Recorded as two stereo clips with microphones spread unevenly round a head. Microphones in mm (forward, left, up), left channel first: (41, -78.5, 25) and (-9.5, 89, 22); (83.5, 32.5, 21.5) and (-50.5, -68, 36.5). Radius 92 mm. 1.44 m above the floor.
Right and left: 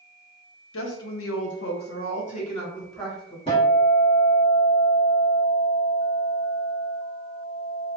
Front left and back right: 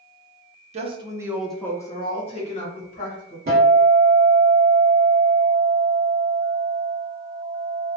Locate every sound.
0.7 s a woman speaking: 90° right, 0.7 m; by 3.4 s 5° right, 1.3 m
3.5 s a guitar: 125° right, 1.2 m